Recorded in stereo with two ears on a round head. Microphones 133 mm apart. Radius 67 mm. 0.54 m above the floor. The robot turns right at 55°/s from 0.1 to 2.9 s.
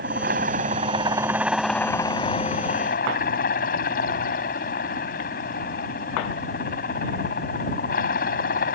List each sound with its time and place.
0.0 s a helicopter: 85° right; by 8.8 s 70° left